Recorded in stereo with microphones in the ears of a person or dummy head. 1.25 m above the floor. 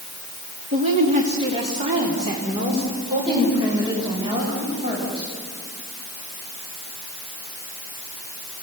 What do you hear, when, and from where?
0.7 s a woman speaking: 40° right (ahead or behind), 2.0 m; by 5.2 s 25° right (ahead or behind), 7 m